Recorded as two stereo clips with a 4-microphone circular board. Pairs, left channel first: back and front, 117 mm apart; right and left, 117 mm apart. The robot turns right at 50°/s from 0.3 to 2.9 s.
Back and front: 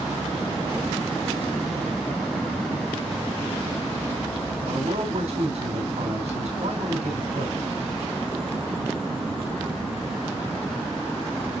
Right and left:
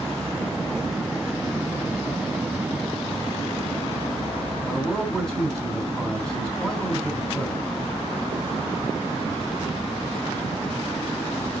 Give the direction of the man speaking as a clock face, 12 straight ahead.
12 o'clock.